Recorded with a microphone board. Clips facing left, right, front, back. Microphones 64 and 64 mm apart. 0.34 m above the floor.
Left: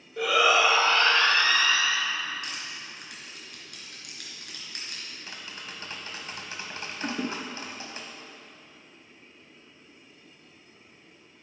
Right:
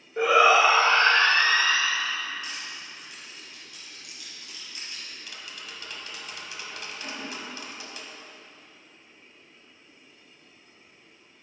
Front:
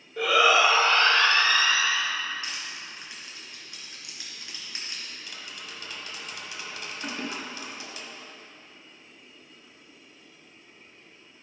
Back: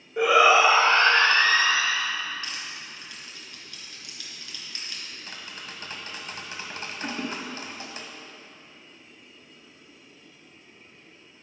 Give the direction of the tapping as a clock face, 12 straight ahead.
7 o'clock.